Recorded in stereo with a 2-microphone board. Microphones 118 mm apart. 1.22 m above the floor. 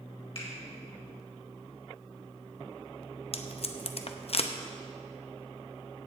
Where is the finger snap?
55° left (ahead or behind), 4 m.